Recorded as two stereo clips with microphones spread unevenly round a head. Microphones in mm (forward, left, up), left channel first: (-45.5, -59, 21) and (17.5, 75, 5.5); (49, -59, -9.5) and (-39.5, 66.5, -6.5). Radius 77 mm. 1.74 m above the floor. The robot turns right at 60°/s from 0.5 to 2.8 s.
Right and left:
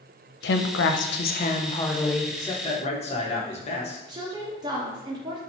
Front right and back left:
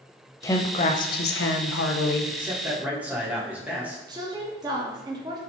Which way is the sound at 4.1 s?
105° left.